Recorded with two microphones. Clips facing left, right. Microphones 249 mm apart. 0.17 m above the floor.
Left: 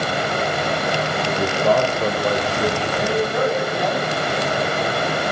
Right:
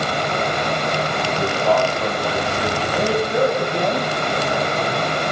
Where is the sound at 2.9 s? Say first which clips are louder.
Right 1 dB; 25° right (ahead or behind), 8 m.